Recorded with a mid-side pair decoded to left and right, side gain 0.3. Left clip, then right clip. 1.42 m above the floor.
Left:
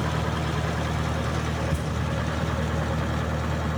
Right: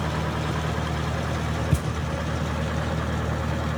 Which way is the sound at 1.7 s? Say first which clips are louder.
Right 2 dB; 60° right.